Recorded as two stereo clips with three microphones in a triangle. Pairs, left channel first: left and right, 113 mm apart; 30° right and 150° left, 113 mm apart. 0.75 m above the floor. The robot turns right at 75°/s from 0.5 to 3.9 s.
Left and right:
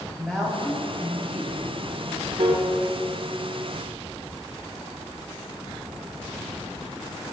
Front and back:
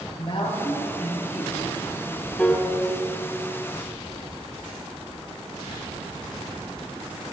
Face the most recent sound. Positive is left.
turn(degrees=5)